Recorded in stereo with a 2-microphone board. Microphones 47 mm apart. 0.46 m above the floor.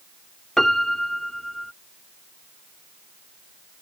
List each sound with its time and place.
0.6 s a piano: 5° left (ahead or behind)